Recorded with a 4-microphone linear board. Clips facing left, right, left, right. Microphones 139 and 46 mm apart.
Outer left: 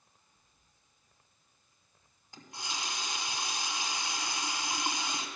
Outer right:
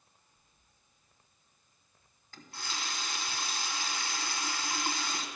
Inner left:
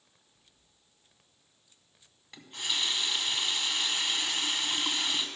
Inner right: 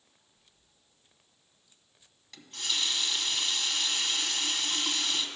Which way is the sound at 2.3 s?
20° left (ahead or behind).